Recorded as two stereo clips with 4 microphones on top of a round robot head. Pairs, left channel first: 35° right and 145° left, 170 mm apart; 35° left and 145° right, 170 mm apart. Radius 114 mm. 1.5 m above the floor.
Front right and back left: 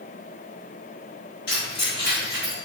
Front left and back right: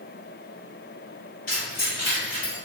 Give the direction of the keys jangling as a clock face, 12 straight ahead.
12 o'clock.